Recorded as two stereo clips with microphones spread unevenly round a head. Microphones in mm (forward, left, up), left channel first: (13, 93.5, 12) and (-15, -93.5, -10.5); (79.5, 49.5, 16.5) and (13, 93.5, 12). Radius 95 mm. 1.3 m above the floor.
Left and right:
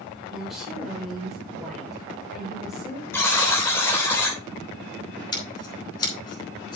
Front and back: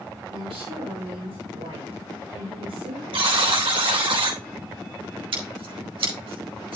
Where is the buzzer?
160° left, 3.5 m.